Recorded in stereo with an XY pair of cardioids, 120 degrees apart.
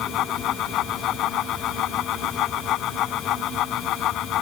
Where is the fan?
70° left.